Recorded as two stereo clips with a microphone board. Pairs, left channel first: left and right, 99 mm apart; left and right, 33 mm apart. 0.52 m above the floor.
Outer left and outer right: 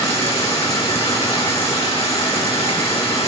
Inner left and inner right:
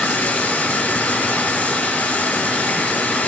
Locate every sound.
0.0 s running water: 80° left, 4.5 m